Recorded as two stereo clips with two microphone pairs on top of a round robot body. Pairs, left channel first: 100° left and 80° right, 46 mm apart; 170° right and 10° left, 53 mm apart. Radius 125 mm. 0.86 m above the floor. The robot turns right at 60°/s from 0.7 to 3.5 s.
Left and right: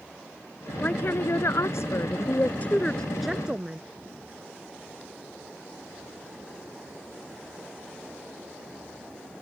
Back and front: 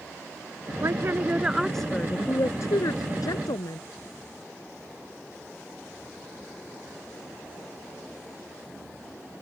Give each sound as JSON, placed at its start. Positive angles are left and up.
{"t": 0.8, "sound": "a woman speaking", "azimuth_deg": 45}